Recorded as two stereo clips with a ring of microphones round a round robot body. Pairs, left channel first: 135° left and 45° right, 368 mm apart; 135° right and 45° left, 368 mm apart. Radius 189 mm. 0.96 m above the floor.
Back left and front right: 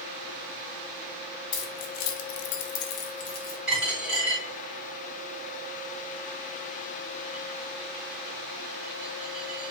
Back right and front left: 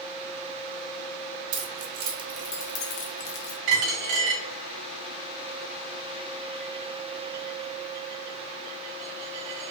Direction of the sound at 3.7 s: 45° left.